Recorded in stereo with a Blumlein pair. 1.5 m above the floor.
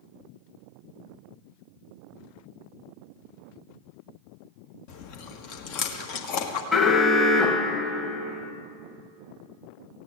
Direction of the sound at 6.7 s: 15° left.